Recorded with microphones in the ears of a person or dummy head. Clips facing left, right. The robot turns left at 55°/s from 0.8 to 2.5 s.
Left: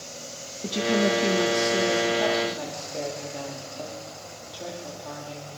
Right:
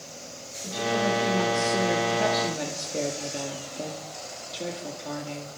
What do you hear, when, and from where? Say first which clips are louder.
0.6 s a woman speaking: left 3 dB; 60° left, 2.5 m; by 5.6 s 30° right, 2.5 m